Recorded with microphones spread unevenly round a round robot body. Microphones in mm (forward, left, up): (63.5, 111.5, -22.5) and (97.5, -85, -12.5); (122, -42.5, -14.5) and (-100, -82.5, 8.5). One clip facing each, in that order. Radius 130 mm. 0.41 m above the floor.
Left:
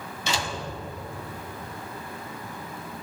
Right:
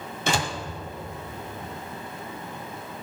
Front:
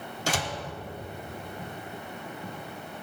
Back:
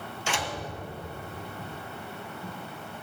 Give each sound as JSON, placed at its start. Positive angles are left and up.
{"t": 0.3, "sound": "a door slam", "azimuth_deg": -40, "distance_m": 1.8}